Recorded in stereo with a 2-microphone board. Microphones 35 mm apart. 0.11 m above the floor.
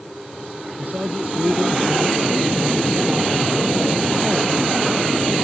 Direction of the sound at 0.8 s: 50° right (ahead or behind).